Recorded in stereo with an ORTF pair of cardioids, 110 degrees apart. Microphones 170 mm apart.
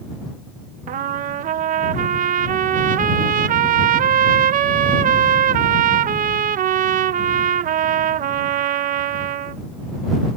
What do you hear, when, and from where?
0.9 s a trumpet: 55° right